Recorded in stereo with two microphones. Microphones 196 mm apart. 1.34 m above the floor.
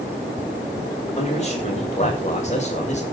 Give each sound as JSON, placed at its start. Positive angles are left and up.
{"t": 1.2, "sound": "a man speaking", "side_deg": 35, "distance_m": 7.5}